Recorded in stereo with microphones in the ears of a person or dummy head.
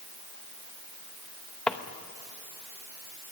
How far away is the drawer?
About 0.9 m.